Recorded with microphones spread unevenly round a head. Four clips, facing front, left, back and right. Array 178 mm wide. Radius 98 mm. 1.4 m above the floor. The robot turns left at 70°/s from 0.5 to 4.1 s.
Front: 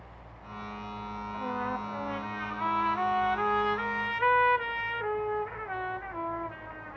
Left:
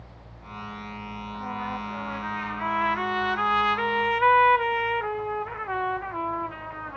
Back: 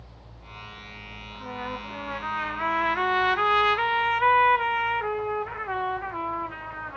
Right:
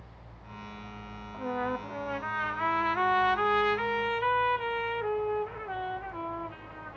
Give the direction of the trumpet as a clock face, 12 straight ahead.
2 o'clock.